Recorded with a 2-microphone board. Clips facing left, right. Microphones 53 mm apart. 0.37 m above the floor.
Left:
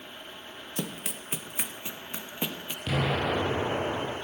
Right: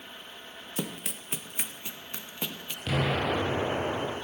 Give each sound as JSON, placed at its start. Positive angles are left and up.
{"t": 0.8, "sound": "running footsteps", "side_deg": -5, "distance_m": 1.1}
{"t": 2.9, "sound": "an explosion", "side_deg": -10, "distance_m": 7.5}